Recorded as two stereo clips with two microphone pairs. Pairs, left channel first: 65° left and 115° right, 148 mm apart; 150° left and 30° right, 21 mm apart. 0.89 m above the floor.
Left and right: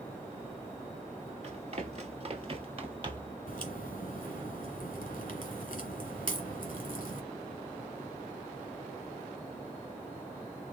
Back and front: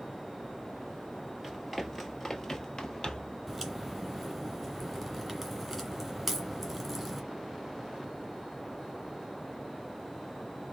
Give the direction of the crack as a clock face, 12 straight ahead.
10 o'clock.